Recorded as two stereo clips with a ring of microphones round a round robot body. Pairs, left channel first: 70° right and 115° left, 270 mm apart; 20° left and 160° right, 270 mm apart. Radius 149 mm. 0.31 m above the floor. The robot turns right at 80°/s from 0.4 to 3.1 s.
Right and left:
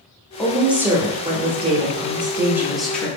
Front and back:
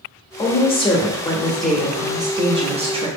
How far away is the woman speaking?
About 0.9 m.